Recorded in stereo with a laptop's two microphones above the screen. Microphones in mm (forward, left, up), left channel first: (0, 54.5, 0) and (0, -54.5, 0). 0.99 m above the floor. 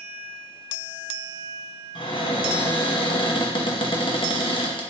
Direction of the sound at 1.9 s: 50° left (ahead or behind).